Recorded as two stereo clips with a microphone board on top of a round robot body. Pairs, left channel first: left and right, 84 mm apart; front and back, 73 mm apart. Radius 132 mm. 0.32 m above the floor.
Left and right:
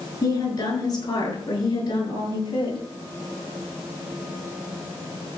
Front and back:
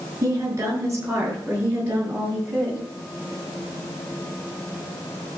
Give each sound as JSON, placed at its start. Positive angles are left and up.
{"t": 0.2, "sound": "a woman speaking", "azimuth_deg": 135, "distance_m": 6.0}